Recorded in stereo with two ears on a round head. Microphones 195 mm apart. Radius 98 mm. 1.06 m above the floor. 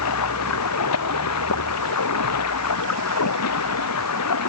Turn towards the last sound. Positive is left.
turn(degrees=85)